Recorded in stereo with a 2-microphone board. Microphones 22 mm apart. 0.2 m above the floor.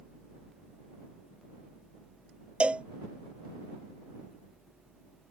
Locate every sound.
2.6 s a cowbell: 60° right (ahead or behind)